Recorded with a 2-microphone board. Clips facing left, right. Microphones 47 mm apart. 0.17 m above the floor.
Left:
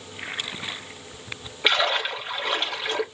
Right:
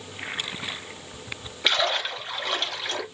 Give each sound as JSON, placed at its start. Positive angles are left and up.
{"t": 1.6, "sound": "a splash", "side_deg": 15, "distance_m": 1.5}